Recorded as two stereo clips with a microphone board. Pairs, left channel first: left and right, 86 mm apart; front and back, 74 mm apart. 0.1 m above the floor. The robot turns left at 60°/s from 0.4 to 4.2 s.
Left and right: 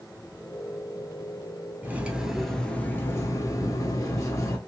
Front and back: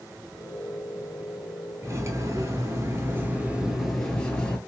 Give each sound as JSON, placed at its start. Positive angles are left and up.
{"t": 1.8, "sound": "cutlery clinking", "azimuth_deg": -145, "distance_m": 0.9}